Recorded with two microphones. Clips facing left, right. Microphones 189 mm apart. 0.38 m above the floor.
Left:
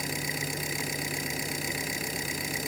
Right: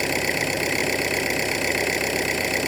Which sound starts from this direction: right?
An engine running, at 0.0 s.